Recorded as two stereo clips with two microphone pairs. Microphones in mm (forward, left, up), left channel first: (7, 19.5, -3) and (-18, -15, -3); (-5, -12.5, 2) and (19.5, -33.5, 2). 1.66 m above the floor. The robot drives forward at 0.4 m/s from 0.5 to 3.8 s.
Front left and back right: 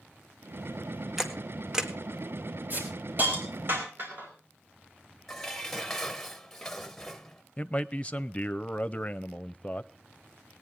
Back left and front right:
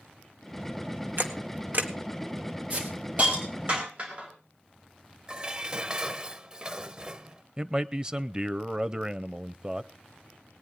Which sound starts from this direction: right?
A hiss, at 2.7 s.